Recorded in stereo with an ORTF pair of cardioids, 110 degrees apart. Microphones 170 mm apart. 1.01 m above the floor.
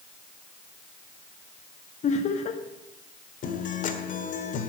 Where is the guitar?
50° left, 1.7 m.